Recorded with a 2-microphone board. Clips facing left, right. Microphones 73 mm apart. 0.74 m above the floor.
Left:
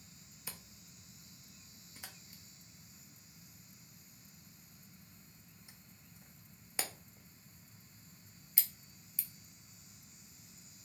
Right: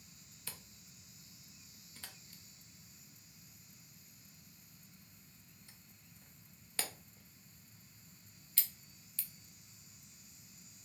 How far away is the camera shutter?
About 0.5 m.